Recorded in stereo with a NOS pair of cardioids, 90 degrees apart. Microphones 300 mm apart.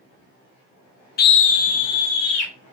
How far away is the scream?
About 0.5 m.